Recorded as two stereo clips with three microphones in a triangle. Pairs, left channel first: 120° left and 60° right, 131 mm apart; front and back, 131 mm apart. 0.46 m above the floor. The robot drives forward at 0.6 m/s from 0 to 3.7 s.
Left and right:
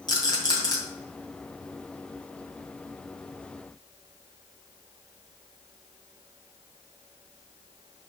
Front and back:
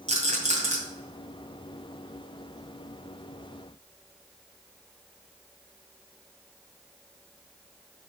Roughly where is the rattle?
Behind.